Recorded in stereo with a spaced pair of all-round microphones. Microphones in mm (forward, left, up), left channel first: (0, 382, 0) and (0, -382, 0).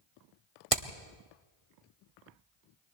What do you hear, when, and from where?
0.7 s hammering: 45° right (ahead or behind), 1.6 m